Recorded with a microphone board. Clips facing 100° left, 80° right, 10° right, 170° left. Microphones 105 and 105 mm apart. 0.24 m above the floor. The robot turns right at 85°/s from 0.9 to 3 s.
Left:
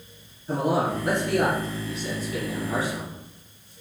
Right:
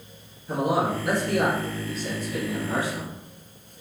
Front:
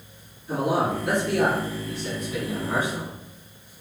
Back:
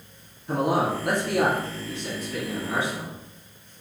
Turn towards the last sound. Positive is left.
turn(degrees=-35)